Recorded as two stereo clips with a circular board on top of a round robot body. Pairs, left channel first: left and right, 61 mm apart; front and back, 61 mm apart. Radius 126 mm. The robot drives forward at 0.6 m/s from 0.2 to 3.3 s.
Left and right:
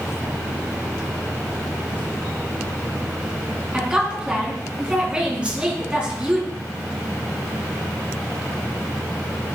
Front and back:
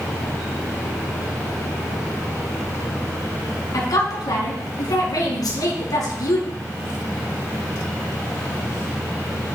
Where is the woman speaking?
15° right, 4 m.